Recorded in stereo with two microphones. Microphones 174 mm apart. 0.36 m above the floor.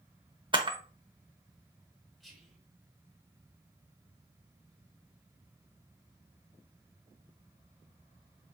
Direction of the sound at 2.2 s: Centre (ahead or behind).